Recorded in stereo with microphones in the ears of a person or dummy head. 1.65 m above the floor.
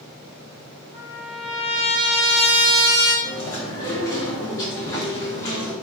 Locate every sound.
0.9 s a trumpet: 10° left (ahead or behind), 1.3 m
3.2 s chewing: 15° left (ahead or behind), 0.6 m